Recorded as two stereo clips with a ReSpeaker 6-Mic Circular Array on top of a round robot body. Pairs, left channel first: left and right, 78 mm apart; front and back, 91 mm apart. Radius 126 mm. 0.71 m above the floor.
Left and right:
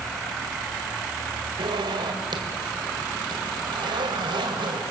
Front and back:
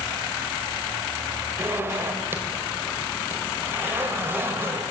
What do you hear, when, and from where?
1.6 s a zipper: 115° right, 2.5 m